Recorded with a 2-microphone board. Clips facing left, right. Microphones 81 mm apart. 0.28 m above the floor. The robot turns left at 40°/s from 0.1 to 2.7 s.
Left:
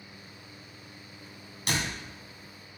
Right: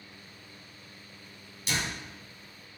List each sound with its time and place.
1.7 s a door slam: 60° left (ahead or behind), 1.8 m